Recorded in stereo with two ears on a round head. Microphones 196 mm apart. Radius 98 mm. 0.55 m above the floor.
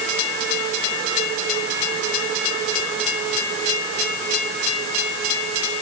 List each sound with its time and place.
Only background noise.